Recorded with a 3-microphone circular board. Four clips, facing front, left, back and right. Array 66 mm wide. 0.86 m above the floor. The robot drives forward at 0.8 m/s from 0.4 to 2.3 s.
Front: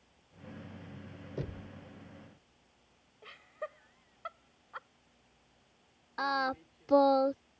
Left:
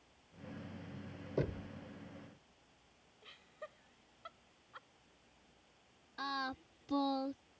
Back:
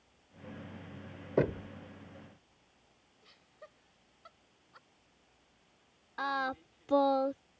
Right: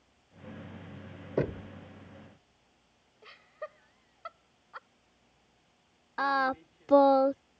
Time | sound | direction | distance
1.4 | knocking | 150° right | ?
3.2 | laughter | 40° right | ?
6.2 | singing | 75° right | ?